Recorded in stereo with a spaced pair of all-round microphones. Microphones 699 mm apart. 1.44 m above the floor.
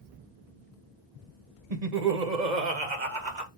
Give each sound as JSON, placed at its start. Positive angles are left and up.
{"t": 1.7, "sound": "laughter", "side_deg": -60, "distance_m": 1.0}